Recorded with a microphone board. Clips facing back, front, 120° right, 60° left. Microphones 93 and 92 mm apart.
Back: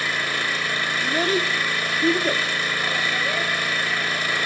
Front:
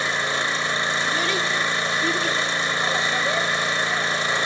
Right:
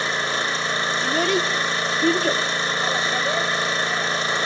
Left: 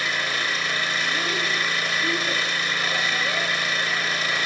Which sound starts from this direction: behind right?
A child speaking, at 1.0 s.